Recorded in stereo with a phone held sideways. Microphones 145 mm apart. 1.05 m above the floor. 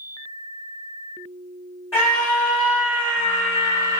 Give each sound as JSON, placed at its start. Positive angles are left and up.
{"t": 1.9, "sound": "a scream", "side_deg": 20, "distance_m": 1.9}